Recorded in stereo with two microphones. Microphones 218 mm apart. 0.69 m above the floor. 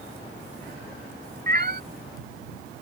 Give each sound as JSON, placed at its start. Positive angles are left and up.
{"t": 1.5, "sound": "a cat meowing", "side_deg": -45}